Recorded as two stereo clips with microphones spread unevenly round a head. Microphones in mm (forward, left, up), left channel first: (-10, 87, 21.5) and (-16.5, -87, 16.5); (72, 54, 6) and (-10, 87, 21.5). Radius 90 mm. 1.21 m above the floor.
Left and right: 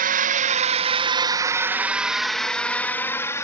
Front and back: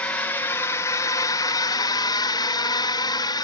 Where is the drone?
90° right; by 3.4 s 15° left.